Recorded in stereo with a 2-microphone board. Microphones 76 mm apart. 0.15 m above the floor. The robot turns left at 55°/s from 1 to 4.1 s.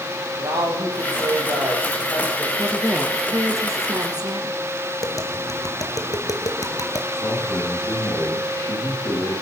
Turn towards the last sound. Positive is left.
turn(degrees=65)  # may be behind; listen again after turning